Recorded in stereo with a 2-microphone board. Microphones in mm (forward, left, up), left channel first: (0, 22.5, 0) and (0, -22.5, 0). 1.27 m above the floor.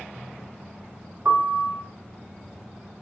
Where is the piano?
60° right (ahead or behind), 1.4 m.